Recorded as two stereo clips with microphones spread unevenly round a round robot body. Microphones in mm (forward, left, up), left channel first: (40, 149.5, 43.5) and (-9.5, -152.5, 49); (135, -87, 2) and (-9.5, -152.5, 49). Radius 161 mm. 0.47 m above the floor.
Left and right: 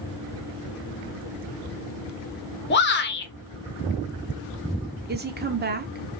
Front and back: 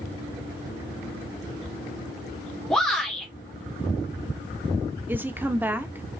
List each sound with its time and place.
2.7 s a shout: 80° left, 1.2 m
5.1 s a woman speaking: 60° right, 0.9 m